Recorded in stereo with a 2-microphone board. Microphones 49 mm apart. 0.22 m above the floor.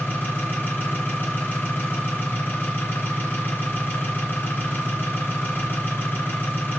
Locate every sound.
0.0 s an engine running: 40° left (ahead or behind), 2 m